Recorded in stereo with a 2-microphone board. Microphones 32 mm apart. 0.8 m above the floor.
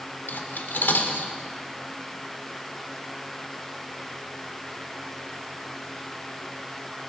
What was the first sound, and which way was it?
Cutlery clinking, 75° left (ahead or behind).